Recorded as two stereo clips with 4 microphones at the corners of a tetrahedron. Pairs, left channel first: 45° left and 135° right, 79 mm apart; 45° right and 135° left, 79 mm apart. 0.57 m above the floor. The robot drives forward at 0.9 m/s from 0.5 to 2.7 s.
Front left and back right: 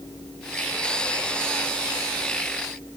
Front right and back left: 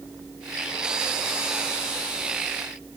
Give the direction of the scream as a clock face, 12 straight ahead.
No scream in this recording.